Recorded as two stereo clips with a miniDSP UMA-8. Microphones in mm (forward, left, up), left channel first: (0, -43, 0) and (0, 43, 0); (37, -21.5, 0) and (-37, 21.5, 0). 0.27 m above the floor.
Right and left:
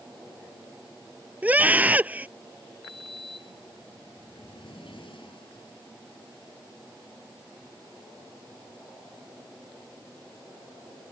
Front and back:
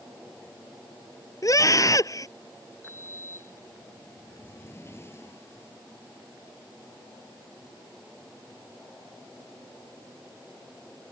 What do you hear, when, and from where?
1.4 s a scream: 20° left
2.8 s a sliding door: 90° right